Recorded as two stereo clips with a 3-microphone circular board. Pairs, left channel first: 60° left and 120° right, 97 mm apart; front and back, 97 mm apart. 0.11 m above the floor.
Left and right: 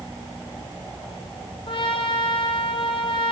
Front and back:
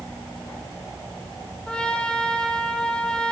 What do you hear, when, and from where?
1.7 s a trumpet: 80° left, 2.5 m